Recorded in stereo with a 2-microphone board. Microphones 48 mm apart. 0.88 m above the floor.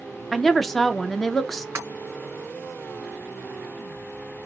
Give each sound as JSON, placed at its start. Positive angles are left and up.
{"t": 0.3, "sound": "a woman speaking", "side_deg": 5, "distance_m": 0.5}
{"t": 1.8, "sound": "breaking glass", "side_deg": -50, "distance_m": 2.0}